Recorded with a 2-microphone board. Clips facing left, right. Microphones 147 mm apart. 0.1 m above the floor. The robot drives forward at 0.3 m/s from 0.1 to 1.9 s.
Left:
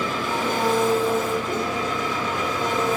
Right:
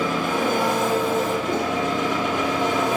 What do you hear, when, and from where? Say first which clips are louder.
0.0 s an engine running: right 3 dB; 55° right (ahead or behind), 1.3 m; by 3.0 s 70° right (ahead or behind), 1.2 m